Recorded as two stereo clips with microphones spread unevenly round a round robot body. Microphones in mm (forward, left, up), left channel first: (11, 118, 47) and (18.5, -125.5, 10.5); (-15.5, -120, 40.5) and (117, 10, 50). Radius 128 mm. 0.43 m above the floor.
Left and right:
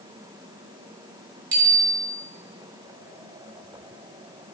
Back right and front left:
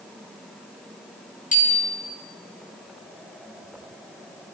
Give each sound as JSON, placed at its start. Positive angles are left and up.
{"t": 1.5, "sound": "a bicycle bell", "azimuth_deg": -90, "distance_m": 5.0}